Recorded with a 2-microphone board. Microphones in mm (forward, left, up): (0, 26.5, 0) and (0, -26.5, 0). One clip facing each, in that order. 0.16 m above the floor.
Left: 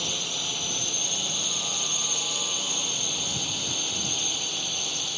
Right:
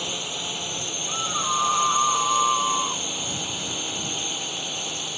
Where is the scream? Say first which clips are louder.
Right 8 dB; 70° right (ahead or behind).